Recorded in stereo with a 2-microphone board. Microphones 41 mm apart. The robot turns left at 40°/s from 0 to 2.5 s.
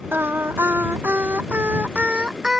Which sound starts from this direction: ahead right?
Singing, at 0.1 s.